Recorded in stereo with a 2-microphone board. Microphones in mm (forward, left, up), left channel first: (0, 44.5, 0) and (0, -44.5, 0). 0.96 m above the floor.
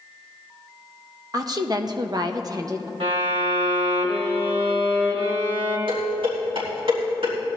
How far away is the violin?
About 3 m.